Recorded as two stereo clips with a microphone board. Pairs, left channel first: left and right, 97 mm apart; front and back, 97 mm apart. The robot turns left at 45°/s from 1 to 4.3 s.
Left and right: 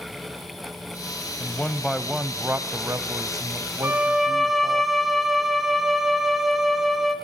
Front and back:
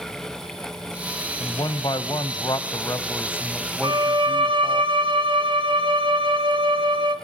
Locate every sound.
1.4 s a man speaking: 30° left, 1.4 m; by 4.8 s 105° right, 1.4 m
3.8 s a violin: 155° right, 3 m; by 7.2 s straight behind, 3 m